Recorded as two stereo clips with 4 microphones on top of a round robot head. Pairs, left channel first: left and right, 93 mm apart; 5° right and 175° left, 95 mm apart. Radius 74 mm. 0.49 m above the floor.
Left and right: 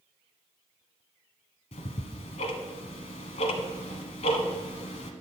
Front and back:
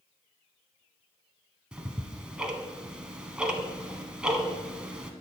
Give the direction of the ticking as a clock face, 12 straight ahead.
9 o'clock.